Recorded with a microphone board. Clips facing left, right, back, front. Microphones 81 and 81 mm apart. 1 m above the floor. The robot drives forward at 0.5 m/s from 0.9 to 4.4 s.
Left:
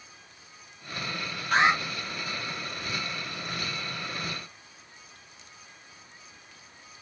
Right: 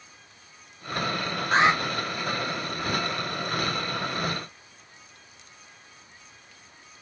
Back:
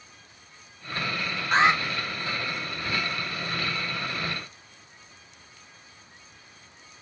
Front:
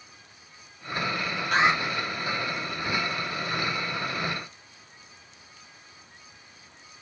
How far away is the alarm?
About 1.3 m.